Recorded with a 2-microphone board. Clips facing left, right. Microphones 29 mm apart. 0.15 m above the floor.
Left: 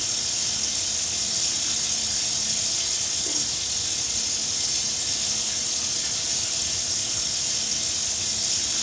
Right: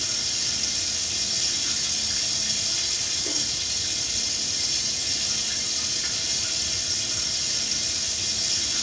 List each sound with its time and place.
0.0 s running water: 25° right (ahead or behind), 5.5 m